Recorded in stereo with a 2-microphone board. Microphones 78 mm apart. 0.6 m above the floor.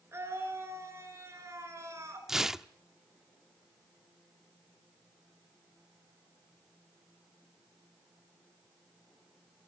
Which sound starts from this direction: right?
A scream, at 0.1 s.